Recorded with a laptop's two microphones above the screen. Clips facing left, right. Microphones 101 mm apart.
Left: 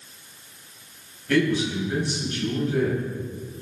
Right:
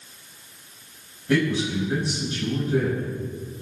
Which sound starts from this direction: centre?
A man speaking, at 1.3 s.